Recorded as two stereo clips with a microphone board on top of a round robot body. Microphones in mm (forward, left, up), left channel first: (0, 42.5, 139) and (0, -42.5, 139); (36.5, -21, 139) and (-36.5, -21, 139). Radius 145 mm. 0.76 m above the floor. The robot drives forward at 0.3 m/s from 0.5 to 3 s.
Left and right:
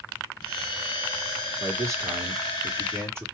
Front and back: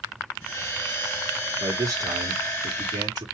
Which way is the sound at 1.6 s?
145° right.